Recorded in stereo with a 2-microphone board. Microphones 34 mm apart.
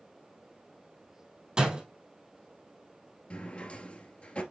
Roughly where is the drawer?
Left.